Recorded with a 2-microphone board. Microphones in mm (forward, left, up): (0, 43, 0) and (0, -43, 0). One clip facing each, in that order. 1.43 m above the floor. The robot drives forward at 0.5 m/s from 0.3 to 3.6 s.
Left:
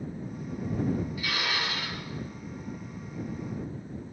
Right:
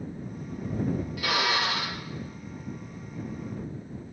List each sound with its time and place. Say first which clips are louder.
1.2 s a drill: right 5 dB; 80° right, 1.6 m